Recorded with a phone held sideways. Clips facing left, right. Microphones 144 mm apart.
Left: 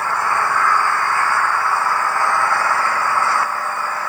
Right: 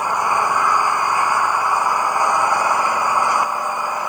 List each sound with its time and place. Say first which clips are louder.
0.0 s an engine running: right 1 dB; 15° right (ahead or behind)